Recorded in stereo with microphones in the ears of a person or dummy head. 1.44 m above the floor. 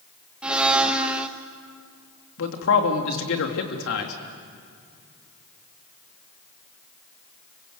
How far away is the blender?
About 1.3 m.